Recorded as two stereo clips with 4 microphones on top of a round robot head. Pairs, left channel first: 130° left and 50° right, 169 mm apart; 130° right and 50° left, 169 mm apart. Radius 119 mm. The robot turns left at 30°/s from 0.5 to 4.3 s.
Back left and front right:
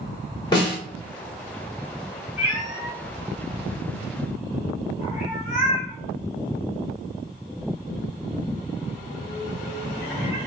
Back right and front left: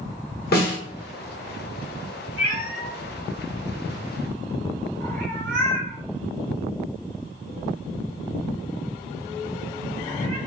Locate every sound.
0.5 s a snare drum: 160° right, 1.1 m; by 0.8 s 170° right, 1.1 m
2.4 s a cat meowing: 140° left, 1.2 m; by 10.4 s 85° left, 1.2 m